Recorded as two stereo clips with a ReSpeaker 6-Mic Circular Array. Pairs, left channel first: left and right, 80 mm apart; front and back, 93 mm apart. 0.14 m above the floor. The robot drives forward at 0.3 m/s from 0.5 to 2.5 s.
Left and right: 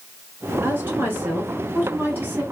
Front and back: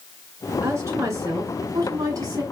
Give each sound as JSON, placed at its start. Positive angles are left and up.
{"t": 0.6, "sound": "a woman speaking", "azimuth_deg": -140, "distance_m": 2.0}